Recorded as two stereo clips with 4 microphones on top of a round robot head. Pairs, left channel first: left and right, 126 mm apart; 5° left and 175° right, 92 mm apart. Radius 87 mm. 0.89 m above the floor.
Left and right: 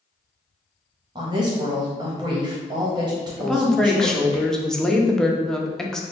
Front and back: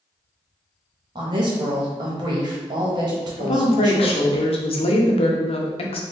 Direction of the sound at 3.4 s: 5° left.